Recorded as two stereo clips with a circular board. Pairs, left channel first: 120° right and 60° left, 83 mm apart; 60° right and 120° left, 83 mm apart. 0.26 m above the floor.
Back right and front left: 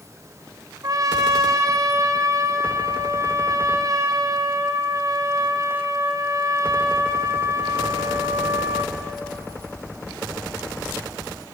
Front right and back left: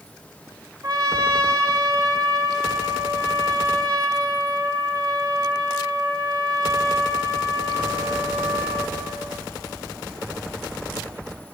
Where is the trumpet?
95° left, 2.5 m.